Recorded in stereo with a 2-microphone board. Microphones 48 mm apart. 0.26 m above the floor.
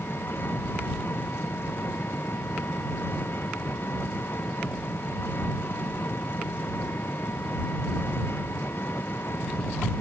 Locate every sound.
0.0 s an engine running: 50° left (ahead or behind)